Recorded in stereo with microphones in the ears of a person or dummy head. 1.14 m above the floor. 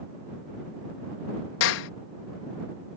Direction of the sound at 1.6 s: 75° left (ahead or behind).